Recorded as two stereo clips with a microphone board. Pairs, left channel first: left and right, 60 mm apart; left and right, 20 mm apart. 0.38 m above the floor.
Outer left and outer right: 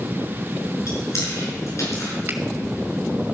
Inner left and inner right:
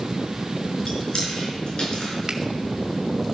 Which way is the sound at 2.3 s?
35° right (ahead or behind).